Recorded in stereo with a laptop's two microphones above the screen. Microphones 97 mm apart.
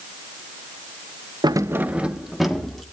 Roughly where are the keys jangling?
Right.